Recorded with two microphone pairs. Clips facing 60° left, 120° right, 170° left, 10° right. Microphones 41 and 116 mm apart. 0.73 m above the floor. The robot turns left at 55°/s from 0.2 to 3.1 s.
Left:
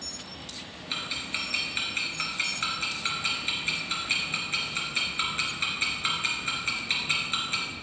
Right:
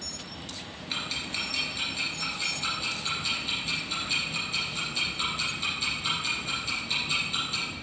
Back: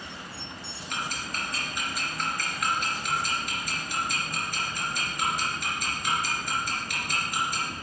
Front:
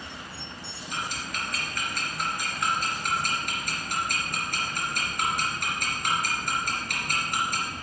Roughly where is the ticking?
Behind left.